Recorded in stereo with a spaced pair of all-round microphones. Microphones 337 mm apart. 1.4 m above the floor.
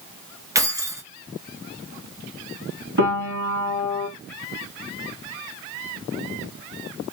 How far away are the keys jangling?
About 0.9 m.